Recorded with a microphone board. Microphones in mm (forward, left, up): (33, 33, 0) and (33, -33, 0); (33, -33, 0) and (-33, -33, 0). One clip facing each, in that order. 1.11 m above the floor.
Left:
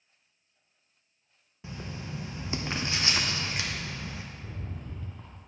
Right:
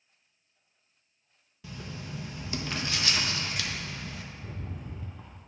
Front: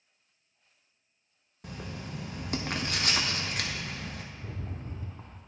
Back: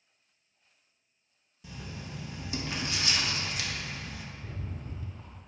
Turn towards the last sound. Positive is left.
turn(degrees=-15)